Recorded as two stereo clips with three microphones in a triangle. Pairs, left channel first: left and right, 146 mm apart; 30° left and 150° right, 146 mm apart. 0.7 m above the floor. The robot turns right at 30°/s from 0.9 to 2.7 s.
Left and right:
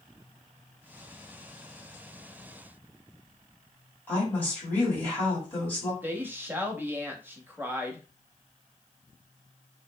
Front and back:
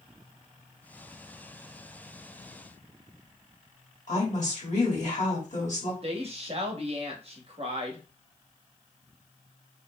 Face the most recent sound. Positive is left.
turn(degrees=-160)